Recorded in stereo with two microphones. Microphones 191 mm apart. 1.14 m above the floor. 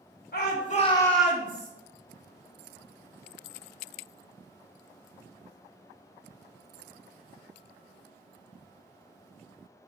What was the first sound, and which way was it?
A shout, 55° left (ahead or behind).